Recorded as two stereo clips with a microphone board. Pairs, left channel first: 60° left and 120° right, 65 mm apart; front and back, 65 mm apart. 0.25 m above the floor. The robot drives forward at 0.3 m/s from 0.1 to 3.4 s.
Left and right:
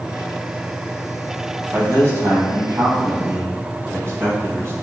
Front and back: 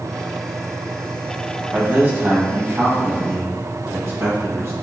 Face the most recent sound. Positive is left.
turn(degrees=-150)